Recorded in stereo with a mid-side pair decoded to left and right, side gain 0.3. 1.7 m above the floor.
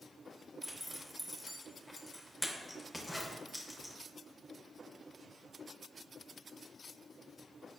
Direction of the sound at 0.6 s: 10° left.